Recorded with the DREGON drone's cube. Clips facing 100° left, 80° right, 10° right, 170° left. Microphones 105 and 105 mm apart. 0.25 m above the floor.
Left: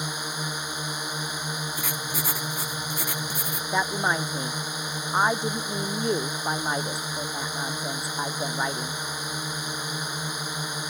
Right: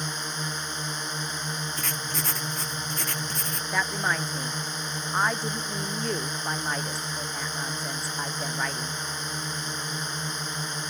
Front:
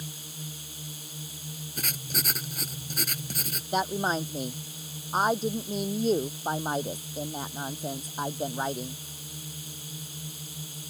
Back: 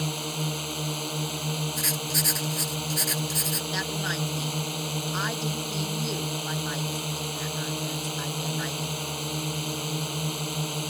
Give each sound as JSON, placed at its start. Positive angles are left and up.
{"t": 0.0, "sound": "a drone", "azimuth_deg": 180}
{"t": 1.8, "sound": "writing", "azimuth_deg": 20}
{"t": 3.7, "sound": "a woman speaking", "azimuth_deg": 30}